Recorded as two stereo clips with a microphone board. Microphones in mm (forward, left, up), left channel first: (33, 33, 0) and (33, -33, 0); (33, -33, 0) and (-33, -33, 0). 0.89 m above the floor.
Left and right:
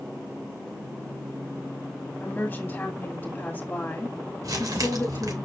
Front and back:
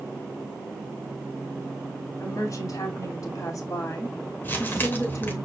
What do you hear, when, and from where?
2.2 s a woman speaking: 20° left, 2.5 m
4.4 s crumpling: 60° right, 3 m